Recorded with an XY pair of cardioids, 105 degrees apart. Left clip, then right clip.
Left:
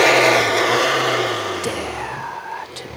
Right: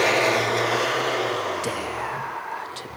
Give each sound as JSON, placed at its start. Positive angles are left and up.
{"t": 1.6, "sound": "whispering", "azimuth_deg": 30, "distance_m": 0.5}